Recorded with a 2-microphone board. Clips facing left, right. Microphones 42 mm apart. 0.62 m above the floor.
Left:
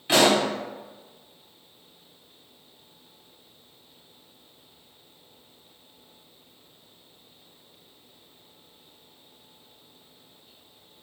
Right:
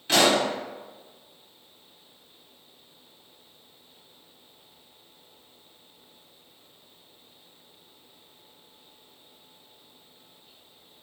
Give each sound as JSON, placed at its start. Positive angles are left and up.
{"t": 0.1, "sound": "a pop", "side_deg": 15, "distance_m": 1.5}